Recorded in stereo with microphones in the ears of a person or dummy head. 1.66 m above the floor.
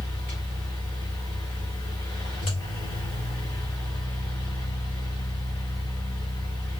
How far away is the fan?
About 1.9 m.